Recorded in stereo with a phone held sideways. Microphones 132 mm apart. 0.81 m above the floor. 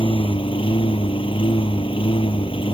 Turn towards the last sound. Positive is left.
turn(degrees=40)  # may be behind; listen again after turning